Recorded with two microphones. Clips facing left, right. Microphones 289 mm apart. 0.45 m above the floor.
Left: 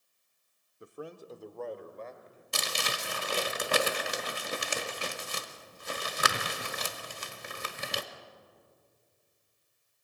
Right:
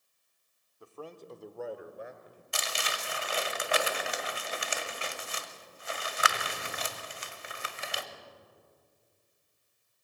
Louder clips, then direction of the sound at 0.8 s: Left 2 dB; 20° left (ahead or behind).